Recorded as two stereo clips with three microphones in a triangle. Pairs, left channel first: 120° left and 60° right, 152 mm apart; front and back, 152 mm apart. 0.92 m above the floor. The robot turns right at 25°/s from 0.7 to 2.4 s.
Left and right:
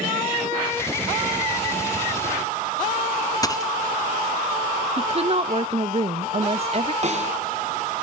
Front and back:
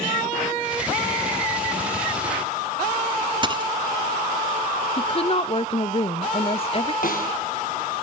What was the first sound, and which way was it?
A dropped coin, 165° left.